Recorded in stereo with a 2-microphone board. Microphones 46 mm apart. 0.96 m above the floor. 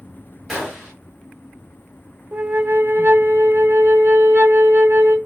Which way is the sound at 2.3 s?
55° right (ahead or behind).